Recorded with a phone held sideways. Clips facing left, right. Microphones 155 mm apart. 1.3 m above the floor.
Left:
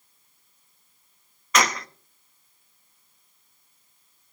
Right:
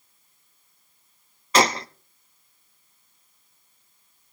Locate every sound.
1.5 s a gunshot: 30° right (ahead or behind), 0.7 m